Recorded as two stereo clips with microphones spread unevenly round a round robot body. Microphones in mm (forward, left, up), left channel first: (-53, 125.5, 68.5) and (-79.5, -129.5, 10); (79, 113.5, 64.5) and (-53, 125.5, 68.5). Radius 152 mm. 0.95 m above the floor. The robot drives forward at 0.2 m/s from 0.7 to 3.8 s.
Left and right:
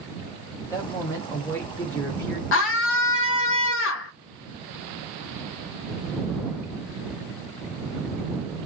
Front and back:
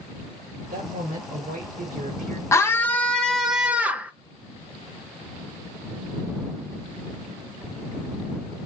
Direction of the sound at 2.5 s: 55° left.